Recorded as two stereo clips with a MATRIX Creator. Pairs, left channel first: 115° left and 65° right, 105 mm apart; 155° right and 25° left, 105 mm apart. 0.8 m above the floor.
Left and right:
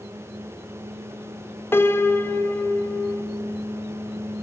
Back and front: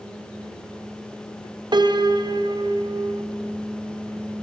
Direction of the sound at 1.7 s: 50° left.